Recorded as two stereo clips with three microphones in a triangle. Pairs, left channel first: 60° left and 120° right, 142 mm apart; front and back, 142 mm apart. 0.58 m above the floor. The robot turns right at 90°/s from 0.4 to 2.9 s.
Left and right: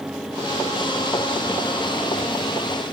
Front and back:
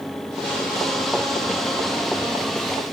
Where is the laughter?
No laughter in this recording.